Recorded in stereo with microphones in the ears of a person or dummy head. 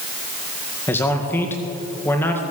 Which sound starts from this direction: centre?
A man speaking, at 0.9 s.